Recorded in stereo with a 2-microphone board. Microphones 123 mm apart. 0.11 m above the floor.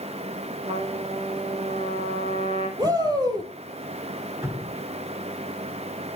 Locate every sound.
0.7 s a trumpet: 60° right (ahead or behind), 3.5 m
2.8 s a shout: 30° right (ahead or behind), 4 m
4.4 s dripping: 20° right (ahead or behind), 1.9 m